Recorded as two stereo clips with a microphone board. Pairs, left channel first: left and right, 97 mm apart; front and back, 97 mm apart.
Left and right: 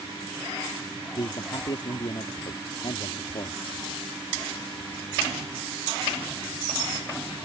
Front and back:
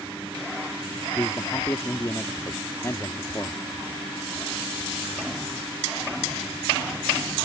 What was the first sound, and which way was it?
A man speaking, 60° left.